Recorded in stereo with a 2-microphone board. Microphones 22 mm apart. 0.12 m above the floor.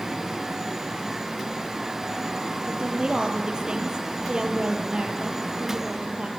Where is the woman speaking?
40° right (ahead or behind), 3.5 m.